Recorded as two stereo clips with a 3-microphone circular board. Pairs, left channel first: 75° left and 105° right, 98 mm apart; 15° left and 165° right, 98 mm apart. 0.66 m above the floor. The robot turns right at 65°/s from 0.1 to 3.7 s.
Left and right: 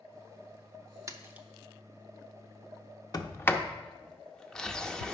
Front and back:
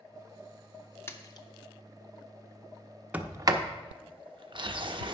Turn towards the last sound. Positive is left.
turn(degrees=155)